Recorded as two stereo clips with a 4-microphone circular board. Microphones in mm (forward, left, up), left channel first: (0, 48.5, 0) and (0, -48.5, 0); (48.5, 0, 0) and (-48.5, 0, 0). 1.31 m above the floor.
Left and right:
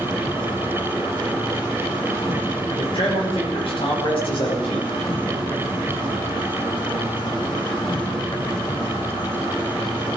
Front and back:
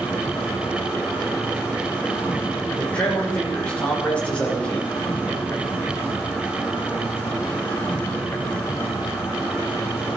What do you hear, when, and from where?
0.0 s an insect: 65° left, 5 m
2.8 s a man speaking: 75° left, 5.5 m